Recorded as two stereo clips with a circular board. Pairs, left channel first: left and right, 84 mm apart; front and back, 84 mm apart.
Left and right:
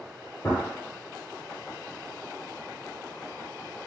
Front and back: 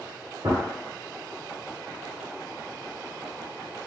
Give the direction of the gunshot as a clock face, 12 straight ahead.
7 o'clock.